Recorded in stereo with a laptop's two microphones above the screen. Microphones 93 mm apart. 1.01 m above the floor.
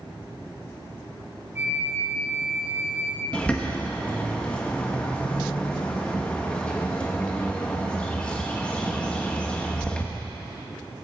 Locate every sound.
1.6 s a flute: 25° right (ahead or behind), 1.2 m
3.3 s a bird: 10° left (ahead or behind), 1.5 m